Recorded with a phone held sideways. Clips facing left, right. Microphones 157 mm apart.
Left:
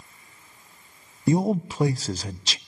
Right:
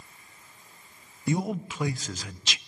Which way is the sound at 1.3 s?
35° left (ahead or behind).